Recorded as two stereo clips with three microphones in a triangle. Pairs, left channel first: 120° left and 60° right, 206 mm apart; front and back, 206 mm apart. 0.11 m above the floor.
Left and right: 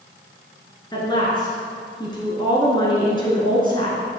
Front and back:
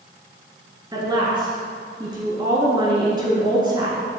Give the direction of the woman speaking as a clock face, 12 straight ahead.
7 o'clock.